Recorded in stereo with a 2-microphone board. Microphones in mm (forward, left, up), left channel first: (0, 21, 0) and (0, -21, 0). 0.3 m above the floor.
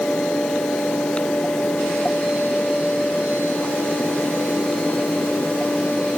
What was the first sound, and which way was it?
Only background noise.